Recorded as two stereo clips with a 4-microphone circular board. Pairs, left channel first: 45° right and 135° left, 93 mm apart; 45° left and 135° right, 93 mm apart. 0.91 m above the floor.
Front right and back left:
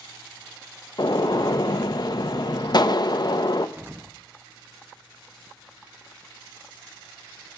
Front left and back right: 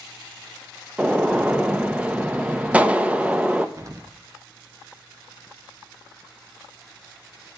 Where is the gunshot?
65° right, 0.5 m.